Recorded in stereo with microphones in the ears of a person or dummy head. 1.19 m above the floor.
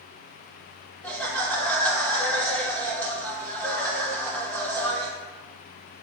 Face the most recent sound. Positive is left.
turn(degrees=10)  # may be behind; listen again after turning